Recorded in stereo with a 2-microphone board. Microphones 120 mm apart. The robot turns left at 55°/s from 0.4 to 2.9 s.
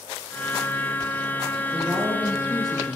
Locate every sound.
1.7 s a woman speaking: 160° right, 7.5 m; by 3.0 s 135° left, 7.5 m